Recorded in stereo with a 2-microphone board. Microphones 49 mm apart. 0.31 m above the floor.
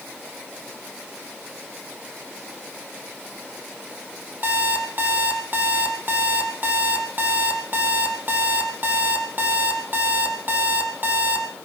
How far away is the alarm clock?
About 4 m.